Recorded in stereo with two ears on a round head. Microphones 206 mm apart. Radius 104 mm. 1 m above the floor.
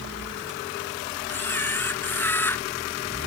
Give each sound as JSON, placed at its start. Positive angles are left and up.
{"t": 1.3, "sound": "a camera shutter", "side_deg": 10}